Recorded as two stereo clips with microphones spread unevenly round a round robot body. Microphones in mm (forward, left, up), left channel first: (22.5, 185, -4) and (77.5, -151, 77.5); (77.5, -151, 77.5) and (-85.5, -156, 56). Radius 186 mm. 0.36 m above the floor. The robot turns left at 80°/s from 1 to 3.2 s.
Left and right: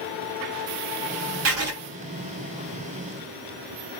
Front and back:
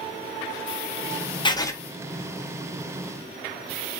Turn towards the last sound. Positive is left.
turn(degrees=175)